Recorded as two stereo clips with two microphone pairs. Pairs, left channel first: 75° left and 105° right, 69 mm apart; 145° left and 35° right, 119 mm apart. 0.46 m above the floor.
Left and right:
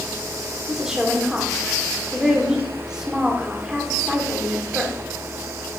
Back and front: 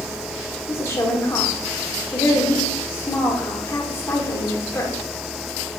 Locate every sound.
0.7 s a woman speaking: 175° right, 1.5 m